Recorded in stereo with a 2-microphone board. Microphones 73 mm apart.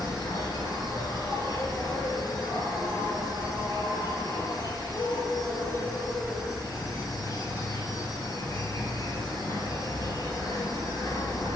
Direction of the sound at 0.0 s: 60° left (ahead or behind).